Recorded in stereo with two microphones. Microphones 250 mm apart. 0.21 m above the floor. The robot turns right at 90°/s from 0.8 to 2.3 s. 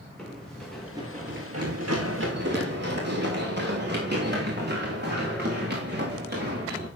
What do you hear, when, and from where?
0.2 s running footsteps: 5° left (ahead or behind), 5 m; by 6.9 s 40° right (ahead or behind), 9.5 m